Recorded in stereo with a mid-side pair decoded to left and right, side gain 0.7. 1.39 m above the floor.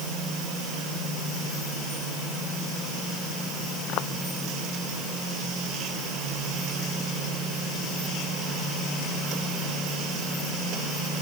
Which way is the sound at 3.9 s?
55° left.